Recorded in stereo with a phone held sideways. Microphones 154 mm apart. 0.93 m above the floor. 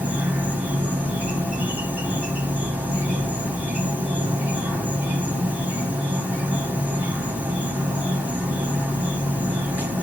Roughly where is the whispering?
No whispering in this recording.